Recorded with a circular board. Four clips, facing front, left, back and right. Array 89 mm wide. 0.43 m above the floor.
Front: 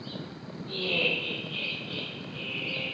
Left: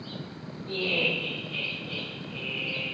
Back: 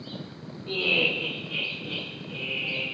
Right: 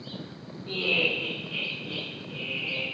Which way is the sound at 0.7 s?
150° right.